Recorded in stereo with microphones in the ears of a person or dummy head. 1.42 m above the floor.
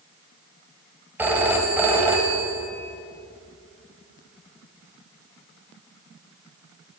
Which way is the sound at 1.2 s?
10° right (ahead or behind).